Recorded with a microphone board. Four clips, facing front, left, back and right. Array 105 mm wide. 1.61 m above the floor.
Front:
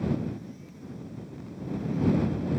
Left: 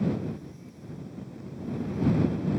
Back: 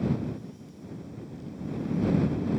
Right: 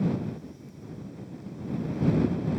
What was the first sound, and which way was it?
Only background noise.